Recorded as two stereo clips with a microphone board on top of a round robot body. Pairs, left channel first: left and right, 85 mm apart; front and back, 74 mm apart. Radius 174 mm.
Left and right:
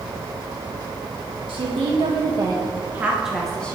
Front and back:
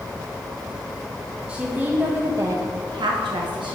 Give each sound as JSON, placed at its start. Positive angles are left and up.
{"t": 1.5, "sound": "a woman speaking", "azimuth_deg": -110, "distance_m": 1.3}